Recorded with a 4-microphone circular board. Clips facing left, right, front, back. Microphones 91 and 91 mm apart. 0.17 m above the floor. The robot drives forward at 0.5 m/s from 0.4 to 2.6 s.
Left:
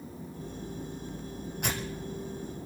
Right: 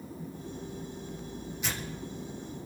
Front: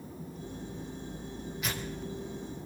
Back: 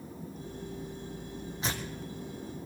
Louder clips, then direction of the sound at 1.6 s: Left 5 dB, back 1 dB; 120° left.